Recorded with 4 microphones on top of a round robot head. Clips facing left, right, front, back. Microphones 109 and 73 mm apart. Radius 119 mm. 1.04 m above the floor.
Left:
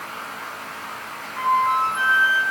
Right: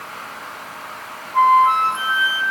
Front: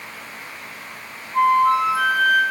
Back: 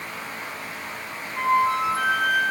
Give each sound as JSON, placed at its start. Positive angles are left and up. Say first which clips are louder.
{"t": 1.3, "sound": "a flute", "louder": "right 6 dB, front 5 dB", "azimuth_deg": -50, "distance_m": 5.5}